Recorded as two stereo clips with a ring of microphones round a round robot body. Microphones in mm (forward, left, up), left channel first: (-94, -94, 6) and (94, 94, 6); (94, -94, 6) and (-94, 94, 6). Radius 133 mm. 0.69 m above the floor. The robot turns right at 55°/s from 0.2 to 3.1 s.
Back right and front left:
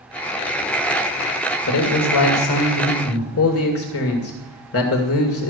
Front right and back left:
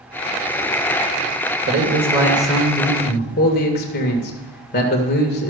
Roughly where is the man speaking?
Behind.